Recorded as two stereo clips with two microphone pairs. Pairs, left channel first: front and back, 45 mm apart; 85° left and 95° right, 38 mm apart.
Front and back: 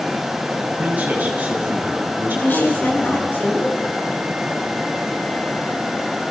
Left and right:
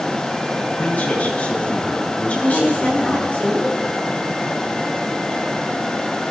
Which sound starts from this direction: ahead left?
A woman speaking, at 2.3 s.